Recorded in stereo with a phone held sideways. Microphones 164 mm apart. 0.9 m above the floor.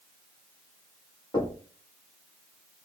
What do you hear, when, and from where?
1.3 s knocking: 25° left (ahead or behind), 1.3 m